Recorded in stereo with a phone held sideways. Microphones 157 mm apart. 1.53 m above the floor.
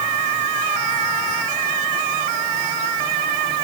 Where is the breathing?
I don't hear breathing.